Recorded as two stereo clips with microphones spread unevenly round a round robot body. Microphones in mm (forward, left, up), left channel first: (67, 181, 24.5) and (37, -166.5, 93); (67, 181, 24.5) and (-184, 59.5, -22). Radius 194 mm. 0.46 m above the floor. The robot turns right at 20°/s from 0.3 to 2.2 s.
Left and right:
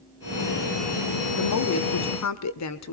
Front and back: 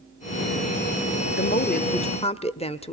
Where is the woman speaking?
80° left, 1.2 m; by 2.9 s 100° left, 1.2 m.